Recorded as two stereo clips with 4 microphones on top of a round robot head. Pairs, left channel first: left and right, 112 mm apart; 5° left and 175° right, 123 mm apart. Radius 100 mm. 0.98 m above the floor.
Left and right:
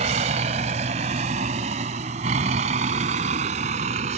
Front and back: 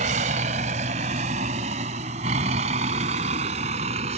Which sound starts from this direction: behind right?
A vehicle, at 0.0 s.